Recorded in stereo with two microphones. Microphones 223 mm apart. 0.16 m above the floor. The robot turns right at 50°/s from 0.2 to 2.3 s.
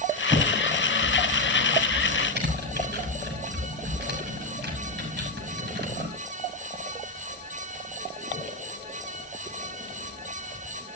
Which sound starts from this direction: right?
Typing on a keyboard, at 0.3 s.